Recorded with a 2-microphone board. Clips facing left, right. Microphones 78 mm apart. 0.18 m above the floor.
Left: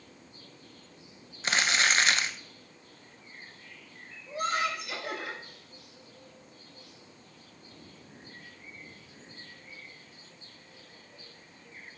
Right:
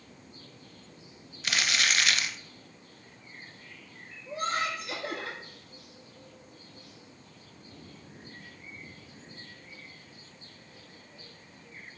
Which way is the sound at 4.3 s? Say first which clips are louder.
Left 1 dB; 30° right (ahead or behind).